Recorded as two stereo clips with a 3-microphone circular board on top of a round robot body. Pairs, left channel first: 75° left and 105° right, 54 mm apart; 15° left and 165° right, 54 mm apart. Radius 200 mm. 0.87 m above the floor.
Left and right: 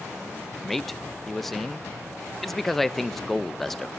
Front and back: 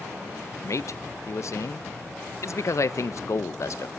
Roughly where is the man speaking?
Ahead.